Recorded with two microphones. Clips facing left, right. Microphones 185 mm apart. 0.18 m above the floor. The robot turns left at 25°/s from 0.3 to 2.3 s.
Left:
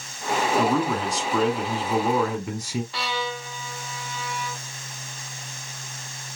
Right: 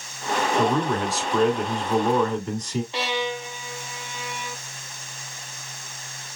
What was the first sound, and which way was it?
A man speaking, 5° right (ahead or behind).